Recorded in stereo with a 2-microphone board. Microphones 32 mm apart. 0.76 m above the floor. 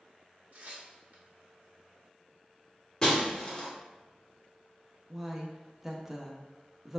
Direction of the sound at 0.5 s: 50° right (ahead or behind).